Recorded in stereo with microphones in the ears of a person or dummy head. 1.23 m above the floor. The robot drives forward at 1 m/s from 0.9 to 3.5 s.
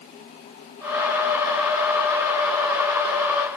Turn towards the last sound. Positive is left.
No sound to turn to.